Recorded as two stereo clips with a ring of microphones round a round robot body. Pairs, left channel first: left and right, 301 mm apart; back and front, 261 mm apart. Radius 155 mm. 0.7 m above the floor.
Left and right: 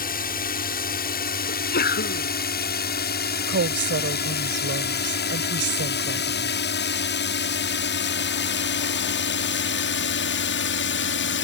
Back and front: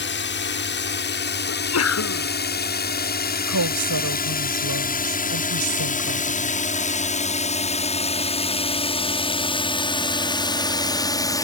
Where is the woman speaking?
35° right.